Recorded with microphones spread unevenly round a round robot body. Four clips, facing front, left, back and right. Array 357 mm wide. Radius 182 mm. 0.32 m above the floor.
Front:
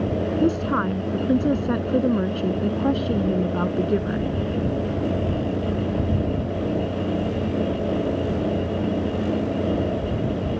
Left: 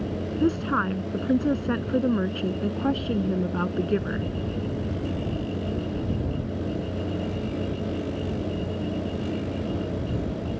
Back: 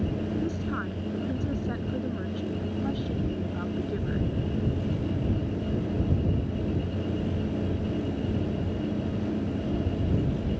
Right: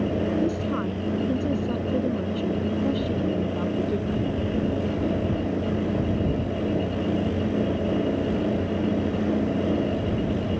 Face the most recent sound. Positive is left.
turn(degrees=25)